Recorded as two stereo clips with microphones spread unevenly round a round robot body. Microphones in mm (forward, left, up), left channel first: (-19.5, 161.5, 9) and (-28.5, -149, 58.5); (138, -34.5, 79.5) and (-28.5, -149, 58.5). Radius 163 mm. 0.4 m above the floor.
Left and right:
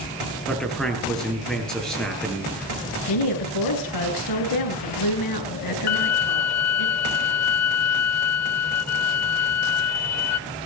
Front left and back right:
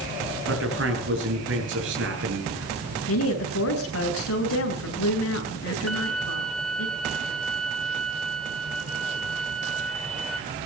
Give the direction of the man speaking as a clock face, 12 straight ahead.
6 o'clock.